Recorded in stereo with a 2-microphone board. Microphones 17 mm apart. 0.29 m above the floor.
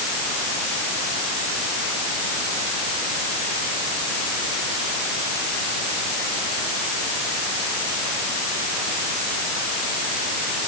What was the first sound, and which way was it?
Only background noise.